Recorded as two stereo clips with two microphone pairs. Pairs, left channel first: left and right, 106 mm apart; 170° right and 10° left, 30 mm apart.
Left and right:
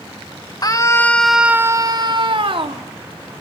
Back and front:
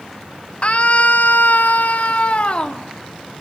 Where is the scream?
140° left, 1.4 m; by 2.9 s 115° right, 2.5 m.